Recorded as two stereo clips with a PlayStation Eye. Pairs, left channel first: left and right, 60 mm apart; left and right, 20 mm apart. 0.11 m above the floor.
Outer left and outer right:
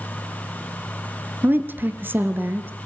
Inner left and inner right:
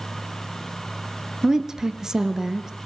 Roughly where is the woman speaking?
Right.